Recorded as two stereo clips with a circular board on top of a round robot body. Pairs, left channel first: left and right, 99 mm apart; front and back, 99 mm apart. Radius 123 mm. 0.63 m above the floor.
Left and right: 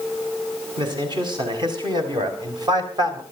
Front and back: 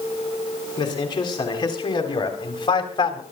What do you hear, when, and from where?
0.8 s a man speaking: 50° right, 7 m; by 3.2 s 40° right, 3.5 m